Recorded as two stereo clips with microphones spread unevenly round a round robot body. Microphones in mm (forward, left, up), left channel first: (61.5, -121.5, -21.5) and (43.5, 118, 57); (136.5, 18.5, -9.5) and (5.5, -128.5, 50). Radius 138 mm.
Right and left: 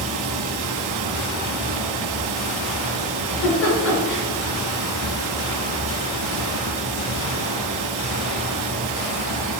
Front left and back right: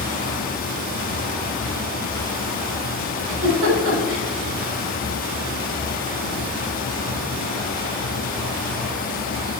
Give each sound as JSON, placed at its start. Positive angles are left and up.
{"t": 0.0, "sound": "running water", "azimuth_deg": 90, "distance_m": 1.4}
{"t": 3.2, "sound": "a giggle", "azimuth_deg": -110, "distance_m": 3.5}